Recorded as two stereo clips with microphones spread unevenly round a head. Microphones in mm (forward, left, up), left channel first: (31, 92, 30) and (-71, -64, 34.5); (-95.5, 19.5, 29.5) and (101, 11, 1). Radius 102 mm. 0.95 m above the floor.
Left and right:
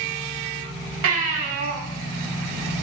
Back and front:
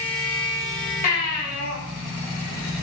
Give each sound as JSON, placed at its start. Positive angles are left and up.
{"t": 1.0, "sound": "a baby crying", "azimuth_deg": -130, "distance_m": 3.5}